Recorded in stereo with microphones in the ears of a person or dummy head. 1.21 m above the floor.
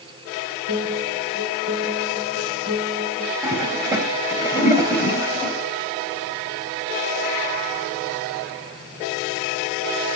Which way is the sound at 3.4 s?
10° right (ahead or behind).